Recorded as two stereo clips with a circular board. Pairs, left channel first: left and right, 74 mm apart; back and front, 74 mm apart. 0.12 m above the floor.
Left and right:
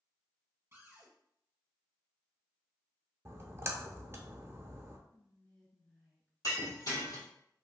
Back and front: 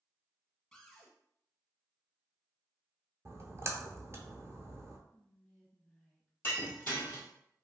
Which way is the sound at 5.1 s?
130° left.